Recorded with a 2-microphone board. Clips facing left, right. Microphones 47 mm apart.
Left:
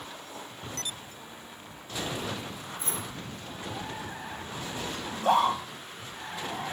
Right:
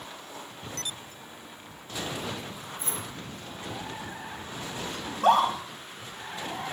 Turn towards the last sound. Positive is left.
turn(degrees=-80)